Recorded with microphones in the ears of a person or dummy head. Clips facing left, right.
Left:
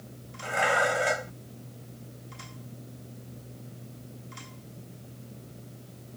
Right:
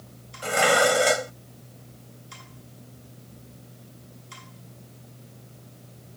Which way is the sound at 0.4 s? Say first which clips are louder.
Right 6 dB; 50° right (ahead or behind).